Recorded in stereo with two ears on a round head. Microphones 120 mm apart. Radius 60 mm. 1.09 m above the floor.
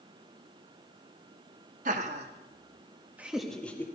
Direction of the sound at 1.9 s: 60° right (ahead or behind).